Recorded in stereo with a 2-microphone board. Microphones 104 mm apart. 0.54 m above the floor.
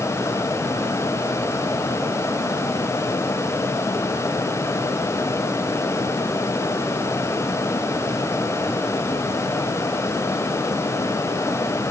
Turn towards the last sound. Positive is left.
No sound to turn to.